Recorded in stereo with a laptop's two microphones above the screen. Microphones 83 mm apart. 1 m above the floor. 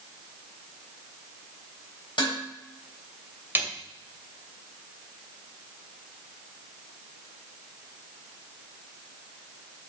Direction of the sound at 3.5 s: 25° right (ahead or behind).